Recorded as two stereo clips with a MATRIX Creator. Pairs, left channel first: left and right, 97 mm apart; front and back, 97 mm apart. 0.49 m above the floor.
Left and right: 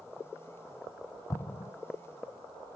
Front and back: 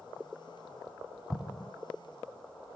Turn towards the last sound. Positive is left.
turn(degrees=80)